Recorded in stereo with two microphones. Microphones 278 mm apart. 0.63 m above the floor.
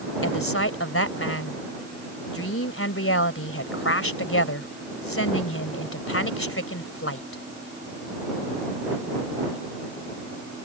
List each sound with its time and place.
0.2 s a woman speaking: 50° left (ahead or behind)